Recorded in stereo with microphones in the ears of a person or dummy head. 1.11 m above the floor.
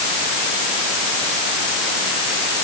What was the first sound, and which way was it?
Only background noise.